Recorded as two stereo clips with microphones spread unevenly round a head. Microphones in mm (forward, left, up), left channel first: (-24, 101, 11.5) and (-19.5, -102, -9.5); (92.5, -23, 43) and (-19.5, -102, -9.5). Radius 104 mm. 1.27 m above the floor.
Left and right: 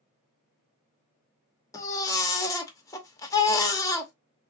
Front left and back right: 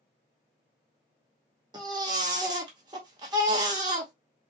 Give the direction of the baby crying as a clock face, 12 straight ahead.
8 o'clock.